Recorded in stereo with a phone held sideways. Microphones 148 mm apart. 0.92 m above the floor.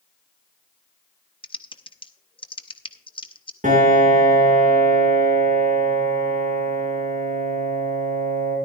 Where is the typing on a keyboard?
35° left (ahead or behind), 0.7 m.